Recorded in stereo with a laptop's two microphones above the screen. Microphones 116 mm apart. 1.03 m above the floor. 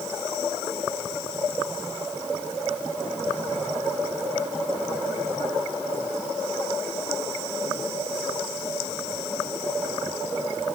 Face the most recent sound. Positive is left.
No sound to turn to.